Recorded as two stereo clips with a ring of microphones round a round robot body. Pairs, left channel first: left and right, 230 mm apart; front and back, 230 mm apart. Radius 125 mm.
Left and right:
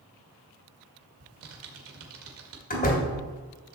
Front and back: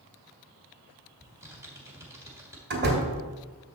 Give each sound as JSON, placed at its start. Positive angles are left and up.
{"t": 1.2, "sound": "typing on a keyboard", "azimuth_deg": -100, "distance_m": 1.7}
{"t": 2.7, "sound": "a door slam", "azimuth_deg": 140, "distance_m": 3.0}